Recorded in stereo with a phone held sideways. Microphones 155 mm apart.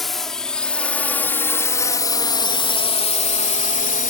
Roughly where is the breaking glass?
No breaking glass in this recording.